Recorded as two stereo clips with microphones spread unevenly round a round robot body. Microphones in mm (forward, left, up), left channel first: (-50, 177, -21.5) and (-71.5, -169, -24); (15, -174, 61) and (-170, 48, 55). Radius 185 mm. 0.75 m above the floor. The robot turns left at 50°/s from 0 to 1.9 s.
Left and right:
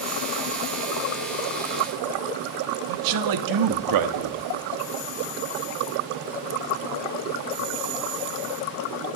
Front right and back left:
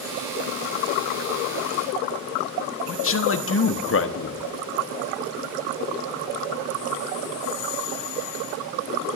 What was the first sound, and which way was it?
A man speaking, 85° right.